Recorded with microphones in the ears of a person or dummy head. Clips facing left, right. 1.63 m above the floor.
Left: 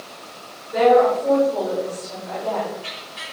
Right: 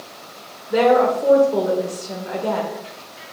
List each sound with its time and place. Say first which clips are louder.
0.7 s a woman speaking: left 1 dB; 75° right (ahead or behind), 1.5 m